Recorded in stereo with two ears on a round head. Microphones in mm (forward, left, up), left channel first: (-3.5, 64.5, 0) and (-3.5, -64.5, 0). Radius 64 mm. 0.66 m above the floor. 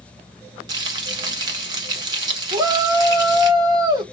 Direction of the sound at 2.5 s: 30° right (ahead or behind).